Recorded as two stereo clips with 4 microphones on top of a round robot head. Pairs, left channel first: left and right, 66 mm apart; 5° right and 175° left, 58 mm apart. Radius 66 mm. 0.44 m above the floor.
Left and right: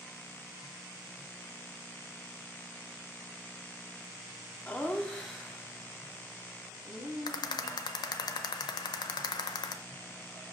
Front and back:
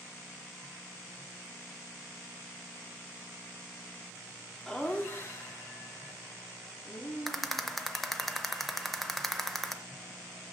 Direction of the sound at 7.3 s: 85° left.